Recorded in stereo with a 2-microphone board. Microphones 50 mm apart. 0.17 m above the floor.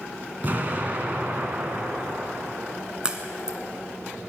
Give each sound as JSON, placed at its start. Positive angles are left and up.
{"t": 0.4, "sound": "an explosion", "side_deg": -40, "distance_m": 1.7}
{"t": 3.0, "sound": "a crack", "side_deg": -20, "distance_m": 1.2}